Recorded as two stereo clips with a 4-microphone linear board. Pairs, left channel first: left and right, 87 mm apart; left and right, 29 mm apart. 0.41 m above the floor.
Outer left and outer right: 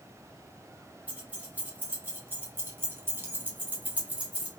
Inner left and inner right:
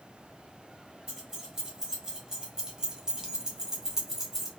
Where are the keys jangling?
15° right (ahead or behind), 1.8 m.